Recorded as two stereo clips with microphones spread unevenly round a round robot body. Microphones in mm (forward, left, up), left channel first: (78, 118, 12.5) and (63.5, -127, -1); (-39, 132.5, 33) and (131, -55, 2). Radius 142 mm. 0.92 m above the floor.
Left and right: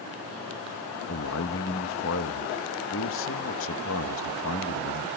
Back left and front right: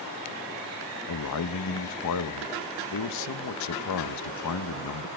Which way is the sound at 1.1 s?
130° left.